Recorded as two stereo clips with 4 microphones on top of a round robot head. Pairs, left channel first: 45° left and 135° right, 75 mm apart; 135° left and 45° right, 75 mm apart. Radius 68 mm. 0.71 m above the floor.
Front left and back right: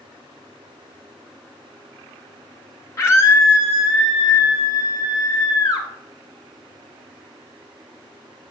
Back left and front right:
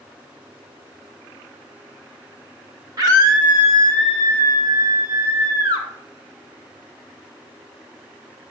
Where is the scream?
10° right, 1.9 m; by 5.9 s 5° right, 3.5 m.